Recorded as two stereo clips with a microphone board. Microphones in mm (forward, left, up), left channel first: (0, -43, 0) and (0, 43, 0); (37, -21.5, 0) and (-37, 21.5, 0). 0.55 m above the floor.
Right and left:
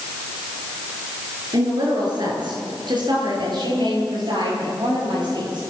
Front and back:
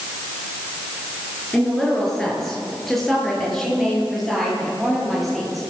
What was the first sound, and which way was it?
A woman speaking, 55° left.